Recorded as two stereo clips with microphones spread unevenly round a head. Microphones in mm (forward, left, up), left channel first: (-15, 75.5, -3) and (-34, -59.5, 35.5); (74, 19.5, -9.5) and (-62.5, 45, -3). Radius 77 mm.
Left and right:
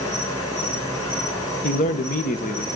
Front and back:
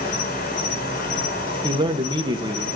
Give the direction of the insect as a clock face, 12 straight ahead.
12 o'clock.